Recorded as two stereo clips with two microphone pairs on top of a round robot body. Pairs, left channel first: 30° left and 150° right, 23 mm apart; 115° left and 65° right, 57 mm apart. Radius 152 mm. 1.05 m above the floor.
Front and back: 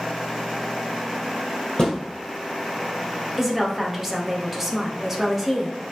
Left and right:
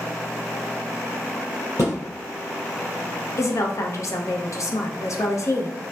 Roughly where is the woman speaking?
Behind left.